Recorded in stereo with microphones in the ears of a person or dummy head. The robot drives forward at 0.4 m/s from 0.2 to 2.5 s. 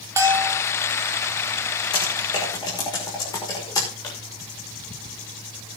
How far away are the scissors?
I don't hear scissors.